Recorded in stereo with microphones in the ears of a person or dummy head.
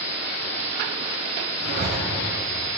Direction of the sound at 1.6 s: 55° right (ahead or behind).